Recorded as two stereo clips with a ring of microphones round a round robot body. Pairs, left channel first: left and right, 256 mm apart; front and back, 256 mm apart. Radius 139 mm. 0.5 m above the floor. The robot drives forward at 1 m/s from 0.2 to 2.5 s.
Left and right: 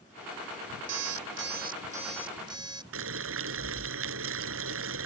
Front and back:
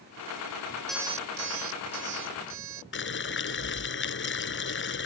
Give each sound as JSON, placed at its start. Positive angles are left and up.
{"t": 0.9, "sound": "an alarm clock", "azimuth_deg": -85}
{"t": 2.9, "sound": "boiling", "azimuth_deg": -45}